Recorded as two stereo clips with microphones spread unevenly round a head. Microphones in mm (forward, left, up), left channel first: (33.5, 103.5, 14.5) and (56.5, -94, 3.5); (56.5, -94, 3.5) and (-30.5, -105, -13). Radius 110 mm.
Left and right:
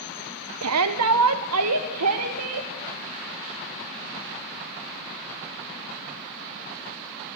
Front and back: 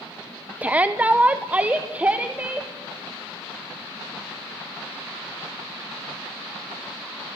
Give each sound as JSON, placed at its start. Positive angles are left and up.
{"t": 0.6, "sound": "a shout", "azimuth_deg": -95, "distance_m": 1.0}